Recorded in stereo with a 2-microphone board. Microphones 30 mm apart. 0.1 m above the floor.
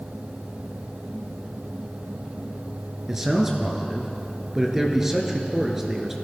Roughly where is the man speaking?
Centre.